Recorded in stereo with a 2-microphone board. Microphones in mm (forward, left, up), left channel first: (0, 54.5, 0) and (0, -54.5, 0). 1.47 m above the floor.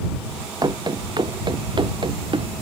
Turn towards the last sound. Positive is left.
turn(degrees=-50)  # may be behind; listen again after turning